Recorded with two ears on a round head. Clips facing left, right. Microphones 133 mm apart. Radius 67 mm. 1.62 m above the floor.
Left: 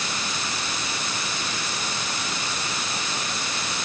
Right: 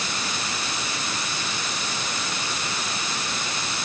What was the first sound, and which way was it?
Only background noise.